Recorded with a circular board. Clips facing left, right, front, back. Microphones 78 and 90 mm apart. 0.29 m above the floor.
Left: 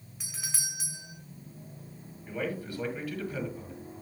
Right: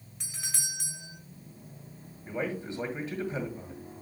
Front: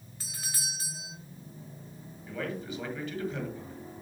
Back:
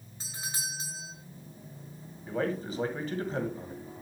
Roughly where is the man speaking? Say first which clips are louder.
Right 1 dB, back 5 dB; behind right.